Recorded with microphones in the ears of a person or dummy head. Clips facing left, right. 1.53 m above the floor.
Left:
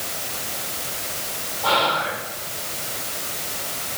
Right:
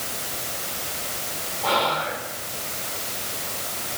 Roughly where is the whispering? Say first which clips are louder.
Left 1 dB; centre.